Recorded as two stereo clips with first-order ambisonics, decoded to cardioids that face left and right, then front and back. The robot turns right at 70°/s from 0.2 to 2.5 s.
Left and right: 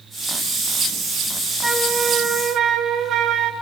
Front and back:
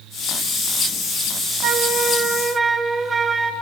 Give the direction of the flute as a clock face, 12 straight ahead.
6 o'clock.